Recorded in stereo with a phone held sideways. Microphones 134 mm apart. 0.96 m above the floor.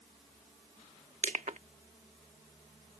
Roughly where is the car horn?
I don't hear a car horn.